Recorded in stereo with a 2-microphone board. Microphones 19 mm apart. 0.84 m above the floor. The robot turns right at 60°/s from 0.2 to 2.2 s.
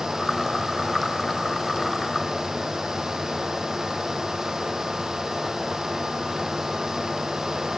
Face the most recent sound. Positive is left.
No sound to turn to.